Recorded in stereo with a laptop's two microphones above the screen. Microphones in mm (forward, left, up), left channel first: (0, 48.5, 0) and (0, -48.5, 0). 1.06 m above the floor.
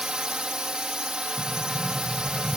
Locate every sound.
0.0 s a drone: 10° right (ahead or behind)
1.4 s a sliding door: 20° left (ahead or behind)